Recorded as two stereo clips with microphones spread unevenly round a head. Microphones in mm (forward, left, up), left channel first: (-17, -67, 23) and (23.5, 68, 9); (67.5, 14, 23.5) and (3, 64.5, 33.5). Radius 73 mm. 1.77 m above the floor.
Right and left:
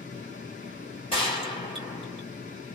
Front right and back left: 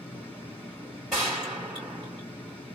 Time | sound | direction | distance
0.0 | a fan | 120° right | 1.3 m
1.1 | a gunshot | 135° right | 2 m